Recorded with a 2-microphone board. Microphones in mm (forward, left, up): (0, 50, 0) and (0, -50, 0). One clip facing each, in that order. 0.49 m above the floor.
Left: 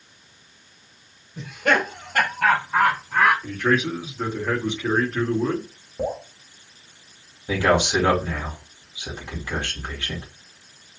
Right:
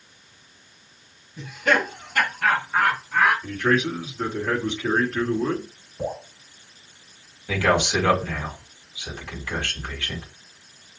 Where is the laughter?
55° left (ahead or behind), 2.0 m; by 3.3 s 70° left (ahead or behind), 3.5 m.